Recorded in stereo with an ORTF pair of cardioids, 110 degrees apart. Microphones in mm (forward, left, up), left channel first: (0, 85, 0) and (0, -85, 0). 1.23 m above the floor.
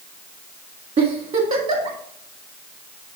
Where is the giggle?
40° right, 1.7 m.